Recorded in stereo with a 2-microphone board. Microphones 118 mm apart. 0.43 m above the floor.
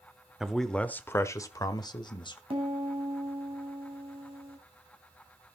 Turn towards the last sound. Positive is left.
turn(degrees=-50)  # may be behind; listen again after turning